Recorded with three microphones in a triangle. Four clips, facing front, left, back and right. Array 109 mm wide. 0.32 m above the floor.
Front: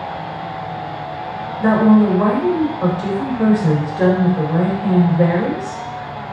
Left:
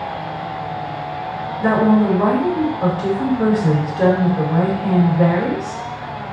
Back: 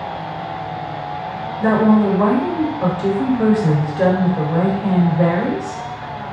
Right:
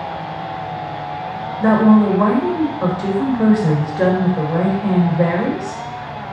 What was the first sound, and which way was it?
A woman speaking, 85° right.